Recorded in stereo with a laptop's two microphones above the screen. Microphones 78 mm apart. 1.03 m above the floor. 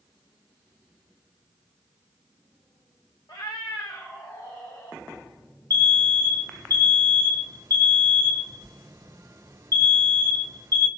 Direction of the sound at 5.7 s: 50° right (ahead or behind).